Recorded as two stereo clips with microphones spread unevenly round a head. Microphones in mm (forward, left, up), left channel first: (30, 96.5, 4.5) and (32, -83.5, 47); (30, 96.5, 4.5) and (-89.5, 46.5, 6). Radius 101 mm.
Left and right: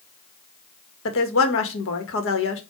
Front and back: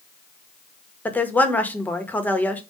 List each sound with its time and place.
1.1 s a woman speaking: 100° left, 2 m